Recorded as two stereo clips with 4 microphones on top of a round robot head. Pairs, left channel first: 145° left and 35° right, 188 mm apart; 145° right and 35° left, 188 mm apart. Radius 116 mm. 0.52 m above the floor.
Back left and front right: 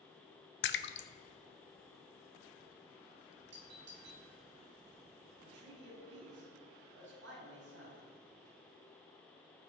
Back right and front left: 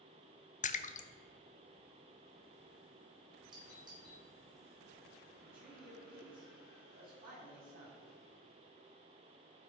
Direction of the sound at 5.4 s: 10° right.